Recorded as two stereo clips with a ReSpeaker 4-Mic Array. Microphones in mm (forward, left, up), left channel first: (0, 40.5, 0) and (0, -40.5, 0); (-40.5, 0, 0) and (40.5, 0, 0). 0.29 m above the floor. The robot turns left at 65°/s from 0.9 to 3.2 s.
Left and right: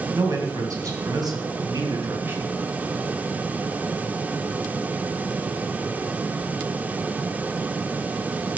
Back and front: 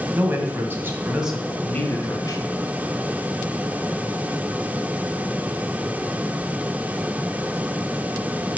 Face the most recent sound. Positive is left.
turn(degrees=155)